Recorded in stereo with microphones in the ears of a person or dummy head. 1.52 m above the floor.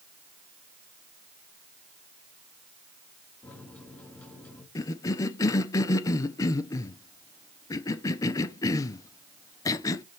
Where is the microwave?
5° left (ahead or behind), 1.5 m.